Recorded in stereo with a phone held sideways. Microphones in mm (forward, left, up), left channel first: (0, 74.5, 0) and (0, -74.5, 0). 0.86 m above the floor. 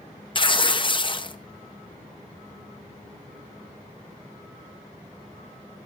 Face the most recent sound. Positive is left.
turn(degrees=35)  # may be behind; listen again after turning